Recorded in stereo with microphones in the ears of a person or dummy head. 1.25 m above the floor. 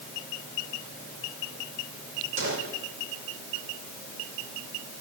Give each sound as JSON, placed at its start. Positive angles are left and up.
{"t": 2.4, "sound": "a gunshot", "side_deg": -75, "distance_m": 4.5}